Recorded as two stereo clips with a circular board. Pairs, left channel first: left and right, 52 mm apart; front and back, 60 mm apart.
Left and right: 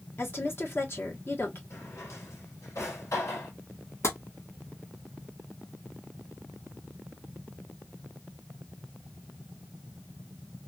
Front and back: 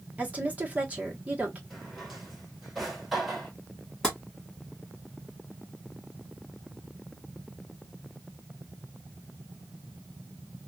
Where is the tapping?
80° left, 1.7 m.